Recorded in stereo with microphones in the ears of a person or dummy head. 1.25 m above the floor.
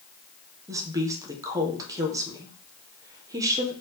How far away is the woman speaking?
About 0.7 m.